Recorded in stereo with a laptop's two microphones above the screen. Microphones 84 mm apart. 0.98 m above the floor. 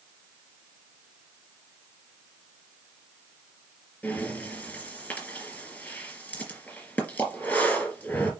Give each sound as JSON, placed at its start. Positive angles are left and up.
{"t": 4.0, "sound": "breathing", "side_deg": 15, "distance_m": 4.0}